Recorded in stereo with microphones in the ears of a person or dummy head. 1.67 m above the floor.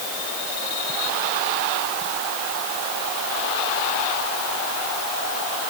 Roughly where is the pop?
No pop in this recording.